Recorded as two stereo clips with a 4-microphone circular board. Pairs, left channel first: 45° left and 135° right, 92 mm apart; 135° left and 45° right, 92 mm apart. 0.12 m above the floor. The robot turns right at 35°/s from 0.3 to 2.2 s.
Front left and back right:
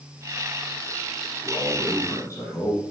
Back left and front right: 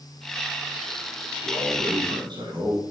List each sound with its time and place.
1.4 s a man speaking: 40° right, 3.5 m; by 2.8 s 15° right, 3.5 m